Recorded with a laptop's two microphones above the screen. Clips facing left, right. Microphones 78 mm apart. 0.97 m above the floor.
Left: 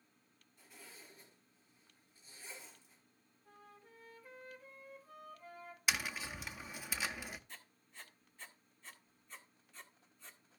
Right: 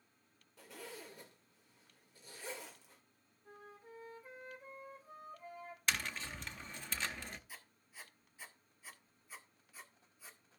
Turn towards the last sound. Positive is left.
turn(degrees=-5)  # may be behind; listen again after turning